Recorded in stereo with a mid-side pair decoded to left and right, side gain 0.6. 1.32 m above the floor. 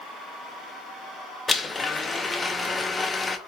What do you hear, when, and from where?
1.5 s a blender: 15° left, 0.9 m